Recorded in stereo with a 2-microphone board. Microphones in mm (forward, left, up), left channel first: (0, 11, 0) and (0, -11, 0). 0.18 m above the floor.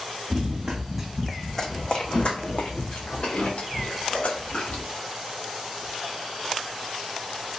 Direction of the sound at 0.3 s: 30° right (ahead or behind).